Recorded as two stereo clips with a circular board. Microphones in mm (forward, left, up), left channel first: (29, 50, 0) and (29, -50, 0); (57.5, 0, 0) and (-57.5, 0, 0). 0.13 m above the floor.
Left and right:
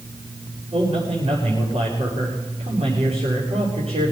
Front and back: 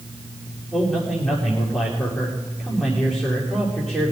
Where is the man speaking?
90° right, 8 m.